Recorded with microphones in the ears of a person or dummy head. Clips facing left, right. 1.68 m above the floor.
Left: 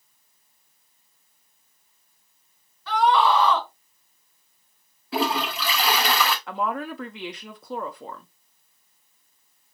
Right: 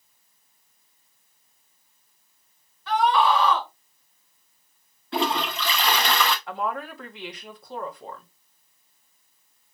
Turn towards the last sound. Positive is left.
turn(degrees=60)  # may be behind; listen again after turning